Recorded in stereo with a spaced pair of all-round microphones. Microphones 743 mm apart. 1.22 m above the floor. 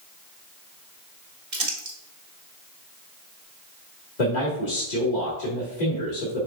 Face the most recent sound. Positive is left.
turn(degrees=70)  # may be behind; listen again after turning